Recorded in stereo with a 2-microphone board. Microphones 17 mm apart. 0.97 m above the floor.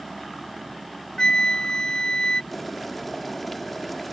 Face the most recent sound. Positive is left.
turn(degrees=10)  # may be behind; listen again after turning